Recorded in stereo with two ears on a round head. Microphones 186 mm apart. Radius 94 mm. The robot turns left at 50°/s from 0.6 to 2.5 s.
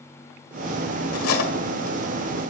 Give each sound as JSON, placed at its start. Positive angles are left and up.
{"t": 1.1, "sound": "cutlery clinking", "side_deg": 85, "distance_m": 1.8}